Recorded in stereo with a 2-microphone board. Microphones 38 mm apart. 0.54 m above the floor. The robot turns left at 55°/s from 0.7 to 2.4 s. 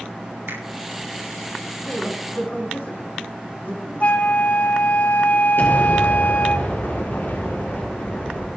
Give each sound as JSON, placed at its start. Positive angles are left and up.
{"t": 0.5, "sound": "a finger snap", "side_deg": -75, "distance_m": 4.5}
{"t": 1.8, "sound": "a man speaking", "side_deg": 25, "distance_m": 5.5}
{"t": 4.0, "sound": "a flute", "side_deg": 40, "distance_m": 1.4}
{"t": 5.6, "sound": "an explosion", "side_deg": 70, "distance_m": 6.5}